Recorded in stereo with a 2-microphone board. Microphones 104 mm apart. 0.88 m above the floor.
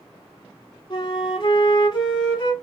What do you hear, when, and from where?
0.9 s a flute: 45° left (ahead or behind), 1.0 m